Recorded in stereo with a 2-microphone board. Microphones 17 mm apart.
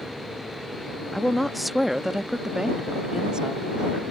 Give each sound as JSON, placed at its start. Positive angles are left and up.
{"t": 1.1, "sound": "a woman speaking", "side_deg": 15}